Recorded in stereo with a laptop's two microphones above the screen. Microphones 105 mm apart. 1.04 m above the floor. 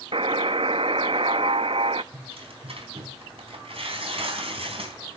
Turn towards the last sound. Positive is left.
turn(degrees=-70)  # may be behind; listen again after turning